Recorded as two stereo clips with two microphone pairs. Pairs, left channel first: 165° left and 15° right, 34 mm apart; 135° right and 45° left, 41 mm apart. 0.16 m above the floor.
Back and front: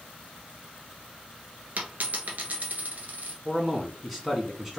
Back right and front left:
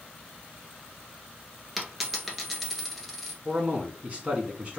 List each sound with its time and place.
1.8 s a dropped coin: 45° right, 1.3 m
3.5 s a man speaking: 60° left, 1.5 m